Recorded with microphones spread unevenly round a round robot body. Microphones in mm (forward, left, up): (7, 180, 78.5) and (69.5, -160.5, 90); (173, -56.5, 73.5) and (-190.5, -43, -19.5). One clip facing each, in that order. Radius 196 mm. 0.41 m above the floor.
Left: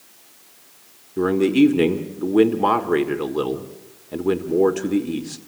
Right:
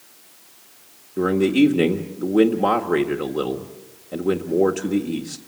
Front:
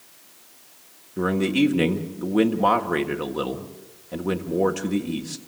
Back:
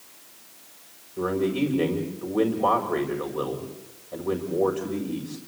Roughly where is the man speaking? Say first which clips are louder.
Left 1 dB, front 3 dB; ahead left.